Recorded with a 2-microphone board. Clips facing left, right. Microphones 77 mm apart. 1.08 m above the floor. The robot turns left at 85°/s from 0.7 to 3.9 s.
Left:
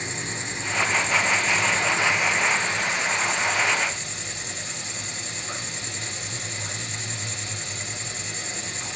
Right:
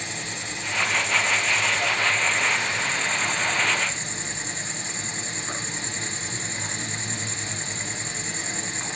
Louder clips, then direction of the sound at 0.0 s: Left 2 dB; 145° left.